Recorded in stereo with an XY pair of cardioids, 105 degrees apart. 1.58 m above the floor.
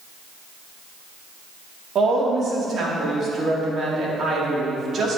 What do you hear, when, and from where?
1.9 s a woman speaking: 55° right, 3 m